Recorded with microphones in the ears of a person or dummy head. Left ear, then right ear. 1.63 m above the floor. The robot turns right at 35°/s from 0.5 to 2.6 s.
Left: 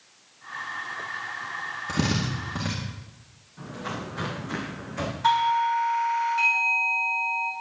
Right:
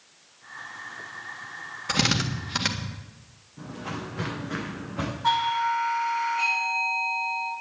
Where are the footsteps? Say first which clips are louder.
Left 1 dB; 70° left (ahead or behind), 8.5 m; by 5.1 s 65° left (ahead or behind), 6.5 m.